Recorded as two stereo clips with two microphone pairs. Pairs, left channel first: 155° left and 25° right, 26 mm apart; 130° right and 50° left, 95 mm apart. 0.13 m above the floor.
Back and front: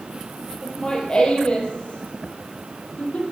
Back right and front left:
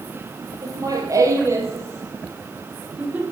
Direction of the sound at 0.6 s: 100° left.